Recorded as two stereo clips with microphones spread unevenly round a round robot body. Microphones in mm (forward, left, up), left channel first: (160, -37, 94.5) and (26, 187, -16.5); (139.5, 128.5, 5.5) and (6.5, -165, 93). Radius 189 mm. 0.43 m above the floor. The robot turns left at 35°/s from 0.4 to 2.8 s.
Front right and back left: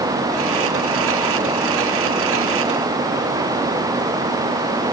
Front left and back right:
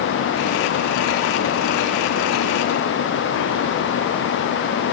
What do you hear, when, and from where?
Only background noise.